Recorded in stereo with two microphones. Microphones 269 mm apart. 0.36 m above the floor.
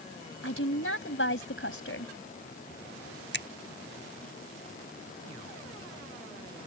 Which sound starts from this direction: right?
A finger snap, at 3.3 s.